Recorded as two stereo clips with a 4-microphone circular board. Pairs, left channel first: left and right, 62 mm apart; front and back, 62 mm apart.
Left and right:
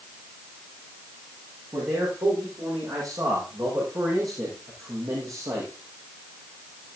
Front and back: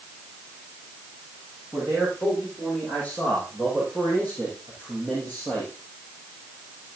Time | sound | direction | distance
1.7 | a man speaking | 75° right | 7 m